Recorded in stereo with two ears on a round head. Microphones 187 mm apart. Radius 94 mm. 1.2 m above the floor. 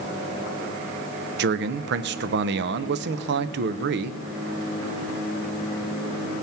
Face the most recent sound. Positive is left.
turn(degrees=-55)  # may be behind; listen again after turning